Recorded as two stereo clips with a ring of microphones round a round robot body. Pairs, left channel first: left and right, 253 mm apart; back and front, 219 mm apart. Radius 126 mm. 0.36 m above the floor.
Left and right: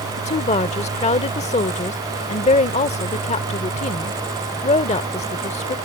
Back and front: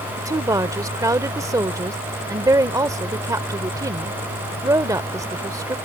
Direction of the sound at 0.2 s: 60° left.